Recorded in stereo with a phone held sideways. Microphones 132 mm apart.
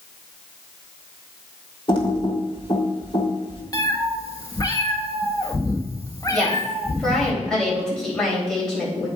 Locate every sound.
1.9 s typing on a keyboard: 40° left (ahead or behind), 1.7 m
3.7 s a cat meowing: 30° left (ahead or behind), 1.1 m
6.3 s a woman speaking: 5° left (ahead or behind), 3.5 m